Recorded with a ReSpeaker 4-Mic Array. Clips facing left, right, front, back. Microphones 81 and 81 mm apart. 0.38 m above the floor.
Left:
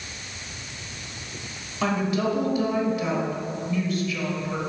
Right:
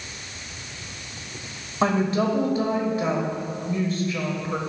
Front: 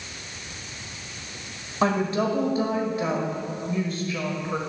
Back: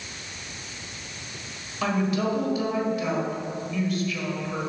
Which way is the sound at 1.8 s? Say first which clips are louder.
Right 3 dB, front 2 dB; 45° right.